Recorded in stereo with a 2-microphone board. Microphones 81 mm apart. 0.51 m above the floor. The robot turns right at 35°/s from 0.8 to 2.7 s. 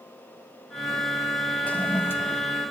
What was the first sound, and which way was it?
A toilet flushing, 20° left (ahead or behind).